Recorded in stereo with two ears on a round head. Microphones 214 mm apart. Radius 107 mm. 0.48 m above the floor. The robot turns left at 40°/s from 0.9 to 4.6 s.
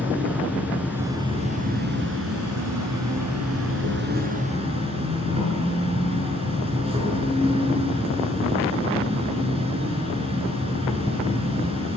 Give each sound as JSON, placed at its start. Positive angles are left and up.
{"t": 0.0, "sound": "an insect", "azimuth_deg": -5, "distance_m": 8.0}